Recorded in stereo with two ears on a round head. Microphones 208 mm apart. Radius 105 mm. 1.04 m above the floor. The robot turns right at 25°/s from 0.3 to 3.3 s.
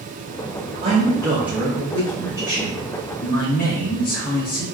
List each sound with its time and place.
0.8 s a man speaking: 25° right, 1.1 m; by 4.7 s 40° left, 1.1 m